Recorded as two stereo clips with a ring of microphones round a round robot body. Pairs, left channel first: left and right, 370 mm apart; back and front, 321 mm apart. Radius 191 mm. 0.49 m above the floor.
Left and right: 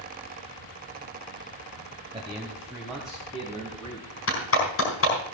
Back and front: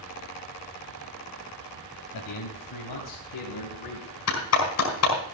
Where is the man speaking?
165° right, 2 m; by 4.1 s 175° left, 4.5 m.